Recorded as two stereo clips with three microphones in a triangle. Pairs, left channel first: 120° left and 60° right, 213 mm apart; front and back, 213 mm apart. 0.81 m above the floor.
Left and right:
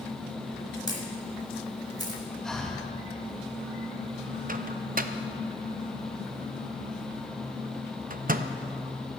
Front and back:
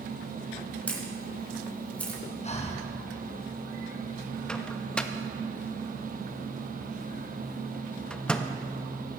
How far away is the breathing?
About 1.0 m.